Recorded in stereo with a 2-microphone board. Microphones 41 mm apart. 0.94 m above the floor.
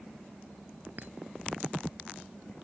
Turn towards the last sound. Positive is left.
turn(degrees=-45)  # may be behind; listen again after turning